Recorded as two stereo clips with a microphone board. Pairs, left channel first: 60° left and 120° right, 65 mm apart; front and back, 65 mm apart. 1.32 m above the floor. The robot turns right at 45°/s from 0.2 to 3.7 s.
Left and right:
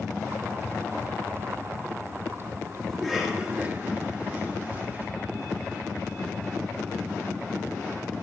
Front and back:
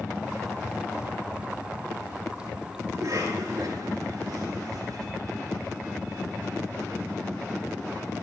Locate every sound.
2.9 s a cough: 145° left, 4.5 m; by 5.1 s straight behind, 4.5 m